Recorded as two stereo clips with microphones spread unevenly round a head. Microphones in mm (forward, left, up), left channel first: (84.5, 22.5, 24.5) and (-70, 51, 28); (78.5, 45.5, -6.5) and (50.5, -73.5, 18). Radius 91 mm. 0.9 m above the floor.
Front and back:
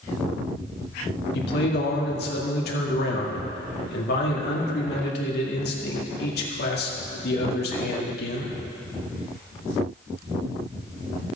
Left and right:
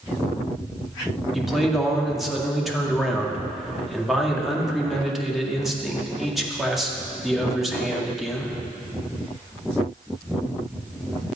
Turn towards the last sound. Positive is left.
turn(degrees=-10)